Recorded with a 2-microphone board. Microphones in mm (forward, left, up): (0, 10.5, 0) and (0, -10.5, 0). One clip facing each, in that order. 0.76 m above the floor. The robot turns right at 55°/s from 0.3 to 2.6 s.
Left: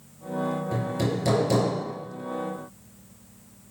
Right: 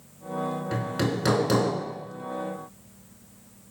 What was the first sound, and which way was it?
Hammering, 130° right.